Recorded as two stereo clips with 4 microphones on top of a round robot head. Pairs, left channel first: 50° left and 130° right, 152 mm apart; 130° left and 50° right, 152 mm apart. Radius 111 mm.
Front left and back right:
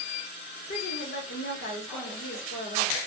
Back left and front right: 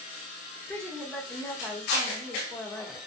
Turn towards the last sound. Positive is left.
turn(degrees=45)